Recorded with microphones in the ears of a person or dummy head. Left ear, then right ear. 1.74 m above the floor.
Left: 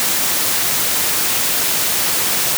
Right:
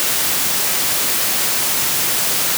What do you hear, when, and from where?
Only background noise.